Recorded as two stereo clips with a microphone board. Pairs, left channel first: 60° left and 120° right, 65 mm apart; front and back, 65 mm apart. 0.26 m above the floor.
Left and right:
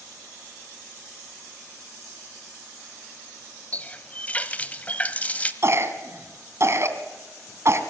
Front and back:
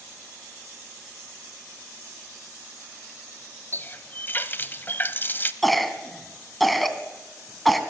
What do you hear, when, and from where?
3.7 s a running tap: 15° left, 0.9 m
5.6 s a cough: 90° right, 2.5 m